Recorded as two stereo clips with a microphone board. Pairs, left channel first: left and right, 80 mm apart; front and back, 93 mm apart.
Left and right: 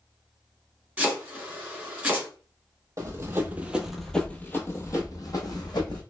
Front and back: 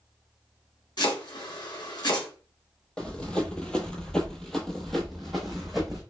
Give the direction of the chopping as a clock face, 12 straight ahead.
1 o'clock.